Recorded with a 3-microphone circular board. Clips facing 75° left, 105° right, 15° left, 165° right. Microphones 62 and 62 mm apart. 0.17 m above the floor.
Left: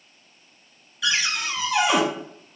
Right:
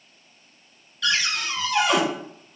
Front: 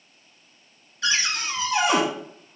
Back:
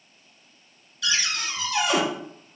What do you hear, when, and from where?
1.0 s a cupboard door: straight ahead, 0.6 m